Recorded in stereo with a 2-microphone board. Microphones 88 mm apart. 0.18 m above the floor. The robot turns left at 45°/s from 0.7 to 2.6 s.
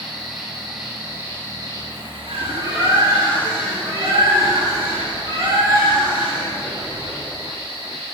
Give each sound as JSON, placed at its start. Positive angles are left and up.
{"t": 0.0, "sound": "an insect", "azimuth_deg": -5, "distance_m": 6.0}
{"t": 2.3, "sound": "a bird", "side_deg": -25, "distance_m": 5.5}